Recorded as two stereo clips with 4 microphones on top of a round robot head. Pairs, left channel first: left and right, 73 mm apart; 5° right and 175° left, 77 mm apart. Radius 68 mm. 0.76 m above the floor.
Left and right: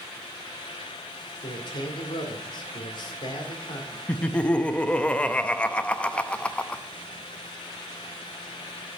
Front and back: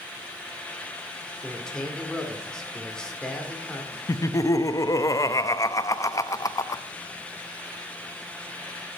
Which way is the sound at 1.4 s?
75° left.